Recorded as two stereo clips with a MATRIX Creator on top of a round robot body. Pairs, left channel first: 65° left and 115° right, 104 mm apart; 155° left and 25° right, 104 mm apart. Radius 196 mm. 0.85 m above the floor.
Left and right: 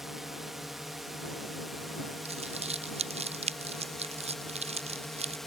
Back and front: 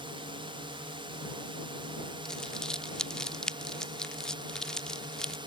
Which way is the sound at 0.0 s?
25° right.